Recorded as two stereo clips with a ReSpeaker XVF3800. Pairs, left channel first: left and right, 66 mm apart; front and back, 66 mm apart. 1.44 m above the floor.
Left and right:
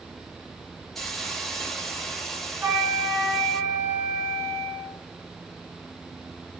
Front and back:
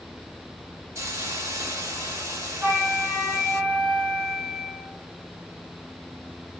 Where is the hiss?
175° left, 1.1 m.